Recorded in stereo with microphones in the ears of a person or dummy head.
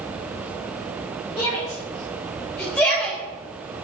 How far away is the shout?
About 4 m.